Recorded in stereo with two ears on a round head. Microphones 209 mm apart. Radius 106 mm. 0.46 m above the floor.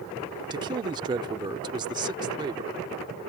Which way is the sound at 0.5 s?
20° right (ahead or behind).